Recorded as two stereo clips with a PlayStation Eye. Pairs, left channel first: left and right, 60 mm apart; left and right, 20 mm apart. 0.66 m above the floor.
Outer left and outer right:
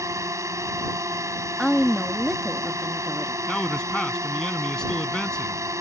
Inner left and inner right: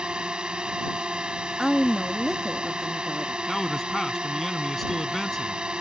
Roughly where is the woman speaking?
Centre.